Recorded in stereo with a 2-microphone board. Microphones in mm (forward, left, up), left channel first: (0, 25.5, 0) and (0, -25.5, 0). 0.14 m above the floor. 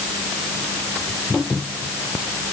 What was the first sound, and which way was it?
Only background noise.